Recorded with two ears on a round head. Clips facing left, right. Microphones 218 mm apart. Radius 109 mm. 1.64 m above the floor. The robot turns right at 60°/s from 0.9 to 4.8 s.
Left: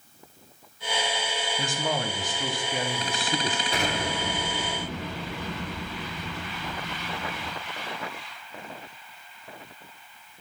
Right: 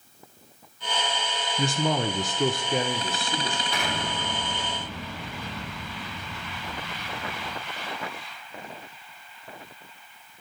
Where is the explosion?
35° left, 1.7 m; by 7.5 s 100° left, 1.7 m.